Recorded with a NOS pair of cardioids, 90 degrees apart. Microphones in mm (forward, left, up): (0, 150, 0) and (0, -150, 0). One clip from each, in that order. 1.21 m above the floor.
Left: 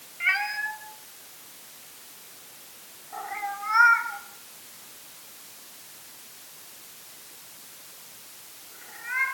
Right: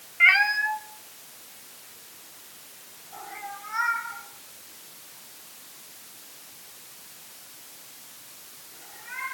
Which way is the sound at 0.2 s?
50° right.